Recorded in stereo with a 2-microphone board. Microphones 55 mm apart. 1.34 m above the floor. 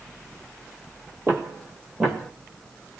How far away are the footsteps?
About 1.9 m.